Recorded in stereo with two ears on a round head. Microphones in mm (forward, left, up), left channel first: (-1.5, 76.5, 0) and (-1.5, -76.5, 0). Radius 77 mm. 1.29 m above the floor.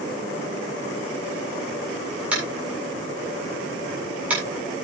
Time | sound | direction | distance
2.3 | tapping | 10° right (ahead or behind) | 8 m